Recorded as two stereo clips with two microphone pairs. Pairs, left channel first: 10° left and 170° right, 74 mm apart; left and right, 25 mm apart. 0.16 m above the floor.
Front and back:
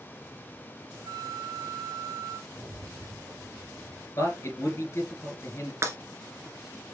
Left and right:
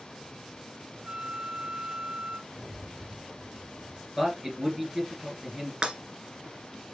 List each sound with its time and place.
1.1 s a flute: 155° right, 0.9 m
2.5 s a rattle: straight behind, 3.5 m
4.2 s a man speaking: 35° right, 2 m
5.8 s breaking glass: 130° right, 1.3 m